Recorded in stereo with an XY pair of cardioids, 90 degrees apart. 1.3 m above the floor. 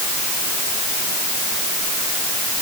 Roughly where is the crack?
No crack in this recording.